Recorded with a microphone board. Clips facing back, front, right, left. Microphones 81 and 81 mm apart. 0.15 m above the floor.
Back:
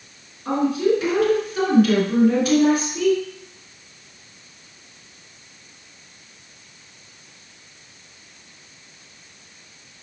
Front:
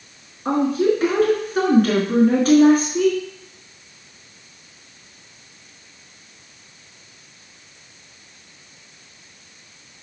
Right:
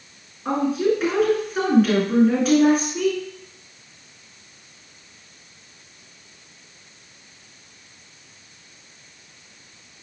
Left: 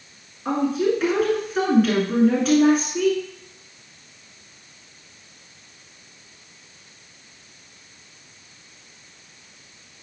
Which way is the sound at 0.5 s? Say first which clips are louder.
Front 1 dB, right 1 dB; straight ahead.